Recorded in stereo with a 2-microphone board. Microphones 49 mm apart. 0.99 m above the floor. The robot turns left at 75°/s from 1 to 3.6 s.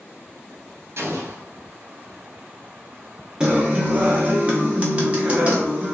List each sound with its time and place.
1.0 s an explosion: 60° right, 0.7 m; by 1.4 s 90° right, 0.7 m
3.4 s a guitar: 15° right (ahead or behind), 0.6 m; by 5.9 s 30° right (ahead or behind), 0.6 m